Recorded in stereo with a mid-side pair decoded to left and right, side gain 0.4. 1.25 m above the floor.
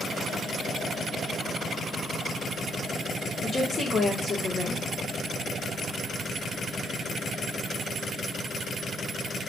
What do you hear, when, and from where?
3.4 s a woman speaking: 45° left, 1.4 m